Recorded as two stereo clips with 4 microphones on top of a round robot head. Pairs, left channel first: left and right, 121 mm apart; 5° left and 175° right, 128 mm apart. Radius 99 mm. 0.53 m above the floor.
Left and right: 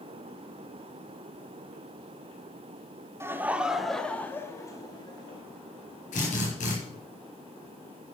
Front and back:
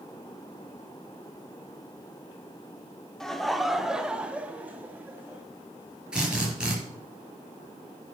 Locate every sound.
3.2 s laughter: 75° right, 1.0 m; by 5.4 s 115° left, 1.4 m
6.1 s a drill: 105° left, 5 m